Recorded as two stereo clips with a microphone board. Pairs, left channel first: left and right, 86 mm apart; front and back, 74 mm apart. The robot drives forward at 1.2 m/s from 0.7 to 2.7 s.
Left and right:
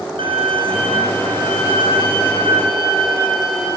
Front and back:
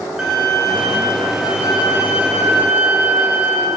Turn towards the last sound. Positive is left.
turn(degrees=-115)